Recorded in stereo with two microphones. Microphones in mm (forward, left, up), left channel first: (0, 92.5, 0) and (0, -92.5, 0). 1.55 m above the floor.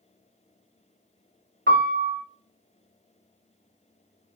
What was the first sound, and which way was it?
A piano, 70° right (ahead or behind).